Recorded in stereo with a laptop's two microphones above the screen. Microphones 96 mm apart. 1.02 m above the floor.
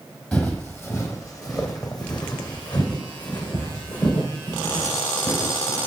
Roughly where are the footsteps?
Centre.